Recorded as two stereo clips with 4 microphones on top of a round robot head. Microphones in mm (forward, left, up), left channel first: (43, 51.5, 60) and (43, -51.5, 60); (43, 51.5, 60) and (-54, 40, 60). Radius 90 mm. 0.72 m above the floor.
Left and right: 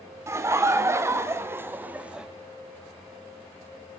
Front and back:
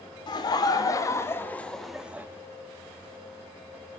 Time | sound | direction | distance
0.3 | laughter | 30° right | 1.7 m